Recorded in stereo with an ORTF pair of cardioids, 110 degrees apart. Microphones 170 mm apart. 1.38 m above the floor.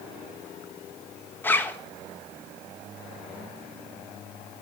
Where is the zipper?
10° left, 1.4 m.